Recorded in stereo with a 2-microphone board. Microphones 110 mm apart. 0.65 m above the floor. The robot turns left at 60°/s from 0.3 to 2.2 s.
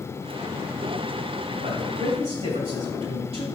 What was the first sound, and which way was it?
A man speaking, 75° right.